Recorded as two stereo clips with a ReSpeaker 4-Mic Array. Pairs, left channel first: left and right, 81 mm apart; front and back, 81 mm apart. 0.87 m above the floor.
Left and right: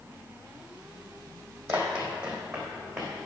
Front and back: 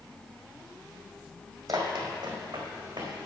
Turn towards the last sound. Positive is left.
turn(degrees=-170)